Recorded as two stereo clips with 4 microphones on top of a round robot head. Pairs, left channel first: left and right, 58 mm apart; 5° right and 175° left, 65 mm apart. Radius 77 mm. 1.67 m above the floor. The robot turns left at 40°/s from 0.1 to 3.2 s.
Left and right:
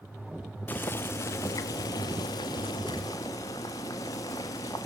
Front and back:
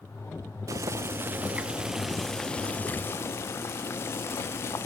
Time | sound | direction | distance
0.7 | boiling | 145° left | 1.1 m